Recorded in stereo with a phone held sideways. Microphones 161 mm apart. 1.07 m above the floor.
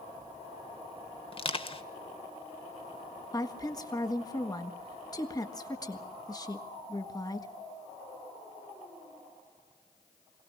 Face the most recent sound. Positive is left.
turn(degrees=25)  # may be behind; listen again after turning